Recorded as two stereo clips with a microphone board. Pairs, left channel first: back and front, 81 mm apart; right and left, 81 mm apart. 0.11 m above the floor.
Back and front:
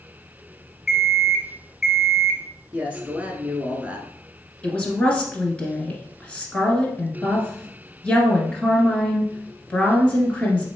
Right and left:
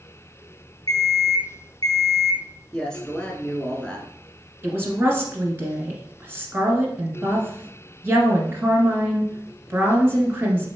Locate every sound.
0.9 s an alarm clock: 85° right, 1.4 m
2.7 s a man speaking: 35° right, 1.1 m
4.6 s a woman speaking: 120° left, 1.5 m